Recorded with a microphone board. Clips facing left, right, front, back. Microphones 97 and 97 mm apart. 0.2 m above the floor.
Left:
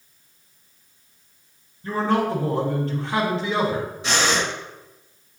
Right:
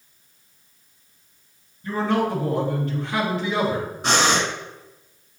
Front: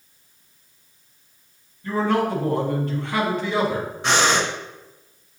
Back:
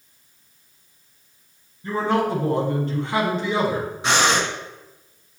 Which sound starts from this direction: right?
Breathing, at 4.0 s.